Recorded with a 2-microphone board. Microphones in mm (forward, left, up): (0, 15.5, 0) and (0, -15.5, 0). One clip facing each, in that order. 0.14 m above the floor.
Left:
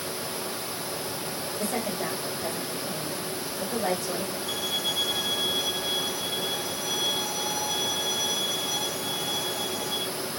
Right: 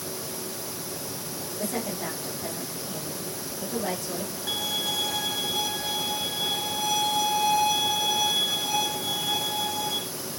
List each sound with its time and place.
1.6 s a woman speaking: 40° left (ahead or behind), 8 m
4.5 s a violin: 65° right (ahead or behind), 1.9 m